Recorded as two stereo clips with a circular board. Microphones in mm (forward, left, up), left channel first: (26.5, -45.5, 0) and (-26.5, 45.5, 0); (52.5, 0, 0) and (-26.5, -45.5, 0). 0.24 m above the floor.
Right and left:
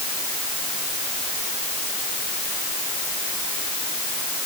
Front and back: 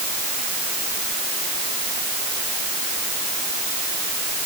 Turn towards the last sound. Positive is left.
No sound to turn to.